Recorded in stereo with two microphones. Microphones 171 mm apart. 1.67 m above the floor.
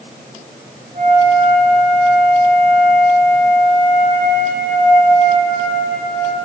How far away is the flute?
About 3 m.